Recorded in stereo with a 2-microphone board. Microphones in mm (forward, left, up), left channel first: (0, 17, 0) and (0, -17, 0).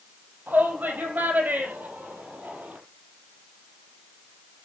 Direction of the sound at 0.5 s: 65° right (ahead or behind).